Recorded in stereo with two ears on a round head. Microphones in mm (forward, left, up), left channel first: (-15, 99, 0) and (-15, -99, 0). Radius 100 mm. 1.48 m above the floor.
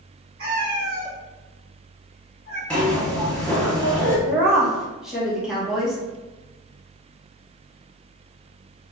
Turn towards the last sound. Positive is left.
turn(degrees=-5)  # may be behind; listen again after turning